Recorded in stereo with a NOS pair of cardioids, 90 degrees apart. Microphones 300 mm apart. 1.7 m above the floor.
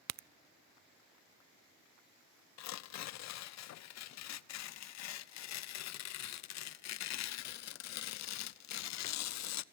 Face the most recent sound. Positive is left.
turn(degrees=65)